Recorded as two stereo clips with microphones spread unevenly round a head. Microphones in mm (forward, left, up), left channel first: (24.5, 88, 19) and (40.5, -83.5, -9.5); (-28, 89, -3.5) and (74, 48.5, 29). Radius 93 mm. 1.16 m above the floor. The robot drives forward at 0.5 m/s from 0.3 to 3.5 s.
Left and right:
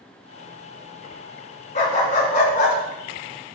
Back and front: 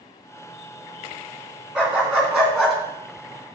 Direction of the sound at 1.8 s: 55° left.